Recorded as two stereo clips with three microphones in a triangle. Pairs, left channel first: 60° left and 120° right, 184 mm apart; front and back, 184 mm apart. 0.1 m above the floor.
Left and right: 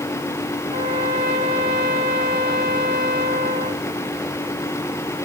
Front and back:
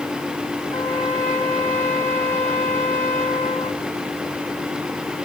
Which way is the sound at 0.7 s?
75° right.